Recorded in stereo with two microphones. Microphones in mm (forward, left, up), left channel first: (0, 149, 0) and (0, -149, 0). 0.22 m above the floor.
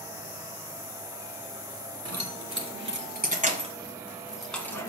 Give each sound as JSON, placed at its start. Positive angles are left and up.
{"t": 2.0, "sound": "keys jangling", "side_deg": -55, "distance_m": 1.9}